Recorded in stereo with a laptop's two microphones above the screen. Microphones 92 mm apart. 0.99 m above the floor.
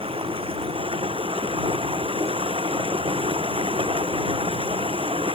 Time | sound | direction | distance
0.0 | running water | 80° right | ?